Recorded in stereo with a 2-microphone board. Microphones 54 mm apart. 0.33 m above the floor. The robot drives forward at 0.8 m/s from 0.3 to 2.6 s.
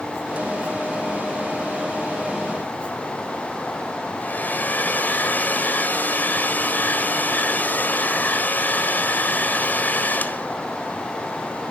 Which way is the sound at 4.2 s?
35° left (ahead or behind).